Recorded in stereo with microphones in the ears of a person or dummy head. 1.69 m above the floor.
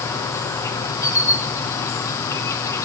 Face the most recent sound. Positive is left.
turn(degrees=15)  # may be behind; listen again after turning